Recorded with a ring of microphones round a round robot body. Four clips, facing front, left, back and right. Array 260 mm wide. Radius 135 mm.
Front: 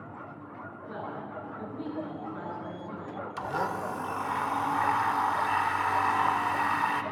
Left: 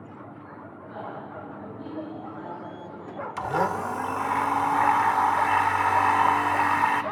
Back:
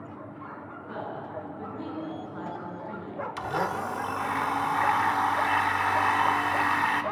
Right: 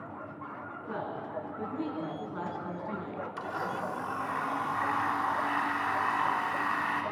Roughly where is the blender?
Left.